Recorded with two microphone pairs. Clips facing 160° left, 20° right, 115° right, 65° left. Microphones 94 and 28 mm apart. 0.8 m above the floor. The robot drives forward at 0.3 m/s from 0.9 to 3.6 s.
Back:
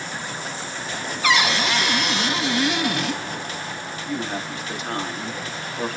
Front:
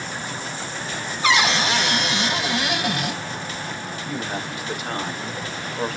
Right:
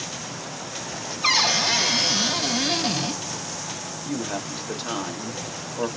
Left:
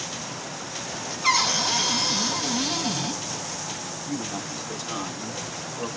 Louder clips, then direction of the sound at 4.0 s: Back 2 dB, right 3 dB; 105° right.